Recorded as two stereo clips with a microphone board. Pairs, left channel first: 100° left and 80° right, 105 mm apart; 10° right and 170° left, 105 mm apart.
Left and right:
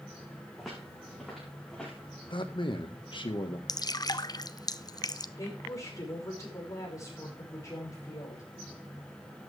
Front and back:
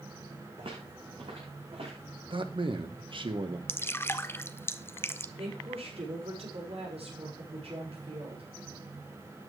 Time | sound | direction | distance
0.6 | footsteps | 170° right | 8 m
2.3 | a man speaking | 135° left | 1.6 m
3.7 | dripping | 50° left | 0.5 m
5.4 | a woman speaking | 155° left | 6 m